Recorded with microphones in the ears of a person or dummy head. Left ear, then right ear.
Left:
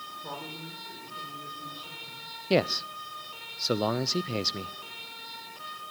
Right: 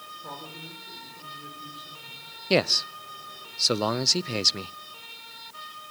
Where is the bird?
No bird in this recording.